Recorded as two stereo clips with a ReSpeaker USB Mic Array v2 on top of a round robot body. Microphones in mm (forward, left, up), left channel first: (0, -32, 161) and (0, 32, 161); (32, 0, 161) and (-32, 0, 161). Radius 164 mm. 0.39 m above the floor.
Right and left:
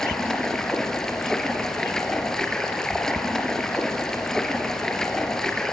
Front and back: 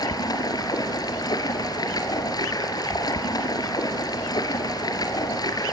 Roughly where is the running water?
Ahead.